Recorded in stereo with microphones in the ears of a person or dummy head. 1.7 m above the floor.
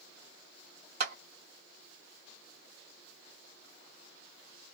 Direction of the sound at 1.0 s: 50° right (ahead or behind).